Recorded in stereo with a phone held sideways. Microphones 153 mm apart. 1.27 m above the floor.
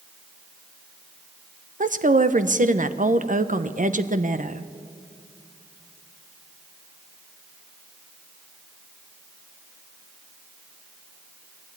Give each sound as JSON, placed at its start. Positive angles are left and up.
{"t": 1.8, "sound": "a woman speaking", "side_deg": -60, "distance_m": 1.0}